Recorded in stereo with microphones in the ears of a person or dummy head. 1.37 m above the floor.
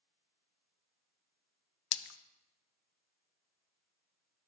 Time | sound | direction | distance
1.9 | a splash | 75° left (ahead or behind) | 0.6 m